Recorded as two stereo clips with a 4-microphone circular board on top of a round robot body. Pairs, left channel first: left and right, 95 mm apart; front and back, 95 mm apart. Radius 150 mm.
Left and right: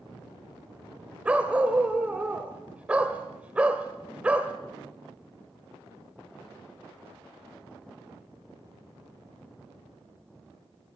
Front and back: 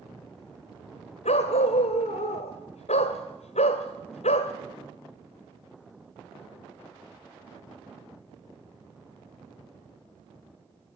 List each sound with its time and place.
1.2 s a dog barking: 10° right, 1.4 m